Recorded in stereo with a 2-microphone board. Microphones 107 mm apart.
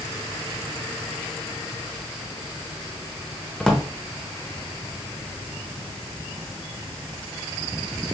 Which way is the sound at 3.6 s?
5° left (ahead or behind).